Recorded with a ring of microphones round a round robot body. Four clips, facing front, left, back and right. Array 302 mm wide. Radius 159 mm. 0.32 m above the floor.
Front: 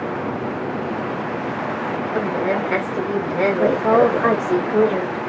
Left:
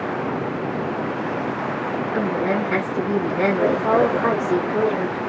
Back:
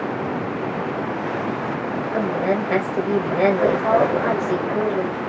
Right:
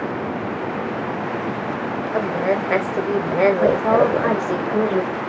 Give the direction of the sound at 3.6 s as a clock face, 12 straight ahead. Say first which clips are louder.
Right 2 dB, front 2 dB; 1 o'clock.